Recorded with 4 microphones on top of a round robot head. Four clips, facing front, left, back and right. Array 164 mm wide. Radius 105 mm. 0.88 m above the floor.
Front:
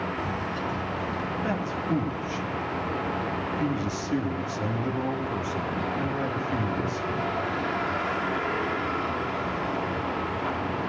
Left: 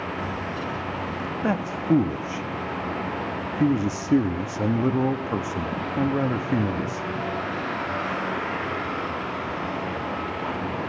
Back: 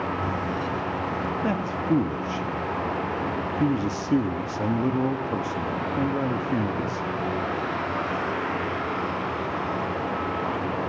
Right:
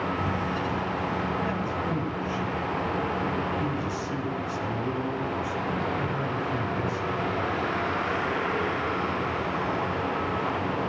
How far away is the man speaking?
About 1.3 m.